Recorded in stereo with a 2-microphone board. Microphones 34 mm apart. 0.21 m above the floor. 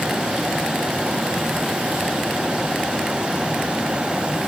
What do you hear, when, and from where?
Only background noise.